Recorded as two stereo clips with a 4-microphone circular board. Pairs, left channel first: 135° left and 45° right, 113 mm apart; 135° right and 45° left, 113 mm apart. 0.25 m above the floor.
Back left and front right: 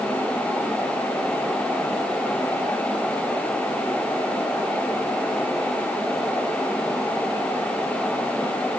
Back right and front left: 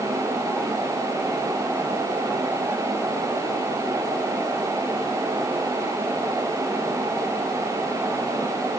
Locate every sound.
Only background noise.